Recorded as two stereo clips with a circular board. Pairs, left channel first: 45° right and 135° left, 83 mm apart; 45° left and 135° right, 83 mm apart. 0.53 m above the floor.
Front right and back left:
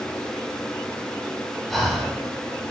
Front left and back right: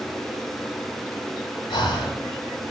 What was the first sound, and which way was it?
Breathing, 45° left.